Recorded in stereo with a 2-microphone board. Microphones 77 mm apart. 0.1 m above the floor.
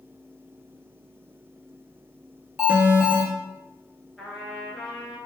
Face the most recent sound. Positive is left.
turn(degrees=-5)  # may be behind; listen again after turning